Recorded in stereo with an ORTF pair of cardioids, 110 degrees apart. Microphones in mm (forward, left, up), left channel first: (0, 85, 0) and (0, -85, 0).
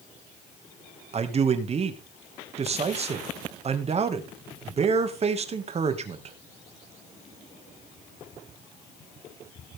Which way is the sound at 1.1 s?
40° right.